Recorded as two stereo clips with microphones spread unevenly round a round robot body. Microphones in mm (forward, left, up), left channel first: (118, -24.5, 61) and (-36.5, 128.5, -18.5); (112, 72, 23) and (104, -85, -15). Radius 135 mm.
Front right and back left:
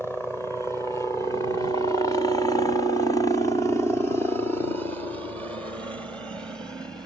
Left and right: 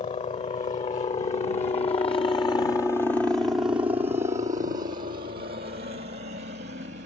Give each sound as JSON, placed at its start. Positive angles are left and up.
{"t": 0.0, "sound": "a helicopter", "azimuth_deg": 45}